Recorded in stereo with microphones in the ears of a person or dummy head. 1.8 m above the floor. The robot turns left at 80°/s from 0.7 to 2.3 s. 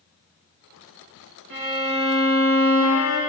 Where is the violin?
80° right, 2 m; by 3.2 s 145° right, 2 m.